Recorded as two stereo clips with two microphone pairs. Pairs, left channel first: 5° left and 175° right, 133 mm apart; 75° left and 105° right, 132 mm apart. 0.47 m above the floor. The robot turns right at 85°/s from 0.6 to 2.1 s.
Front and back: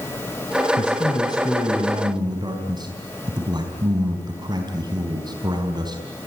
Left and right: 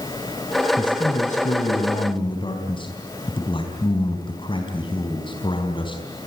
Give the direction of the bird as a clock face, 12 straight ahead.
No bird in this recording.